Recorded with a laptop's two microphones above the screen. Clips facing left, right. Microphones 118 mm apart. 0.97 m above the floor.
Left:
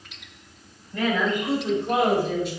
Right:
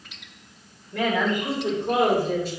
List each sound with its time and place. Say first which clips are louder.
0.9 s a woman speaking: even; 60° right (ahead or behind), 3.5 m; by 2.5 s 40° right (ahead or behind), 3.5 m